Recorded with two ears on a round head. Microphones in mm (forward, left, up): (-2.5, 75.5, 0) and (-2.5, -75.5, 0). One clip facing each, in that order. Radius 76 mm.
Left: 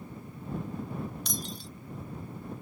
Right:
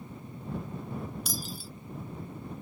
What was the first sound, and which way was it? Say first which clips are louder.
Breaking glass: even; 5° right (ahead or behind).